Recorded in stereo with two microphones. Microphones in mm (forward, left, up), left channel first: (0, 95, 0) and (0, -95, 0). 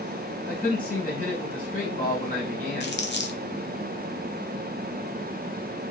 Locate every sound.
0.5 s a man speaking: 40° left (ahead or behind), 1.3 m
2.8 s crumpling: 65° left (ahead or behind), 0.6 m